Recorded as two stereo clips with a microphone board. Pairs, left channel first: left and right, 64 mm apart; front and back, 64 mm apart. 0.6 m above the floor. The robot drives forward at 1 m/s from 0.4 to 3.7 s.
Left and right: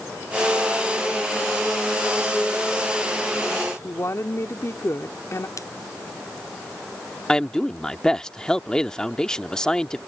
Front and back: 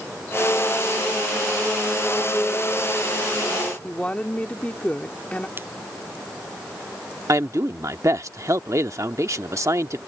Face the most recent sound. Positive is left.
turn(degrees=165)